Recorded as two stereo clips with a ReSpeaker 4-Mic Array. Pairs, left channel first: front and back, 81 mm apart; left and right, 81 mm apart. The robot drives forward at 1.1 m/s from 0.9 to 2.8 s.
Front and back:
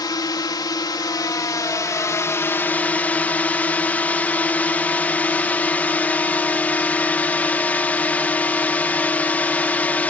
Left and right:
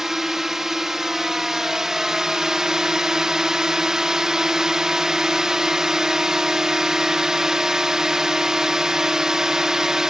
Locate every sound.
0.0 s a drone: 5° right; by 10.1 s 20° right